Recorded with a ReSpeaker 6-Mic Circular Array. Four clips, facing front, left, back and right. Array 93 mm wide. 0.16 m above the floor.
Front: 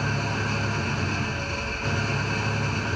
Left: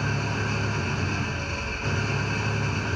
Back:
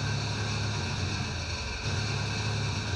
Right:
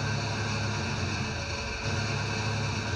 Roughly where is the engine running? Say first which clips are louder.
Left 4 dB, front 7 dB; ahead left.